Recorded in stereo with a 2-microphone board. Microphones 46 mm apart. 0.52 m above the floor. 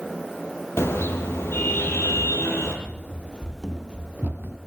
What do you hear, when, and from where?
0.8 s a car horn: 75° left (ahead or behind), 5 m
2.9 s running footsteps: 50° left (ahead or behind), 0.8 m; by 4.6 s 50° right (ahead or behind), 0.9 m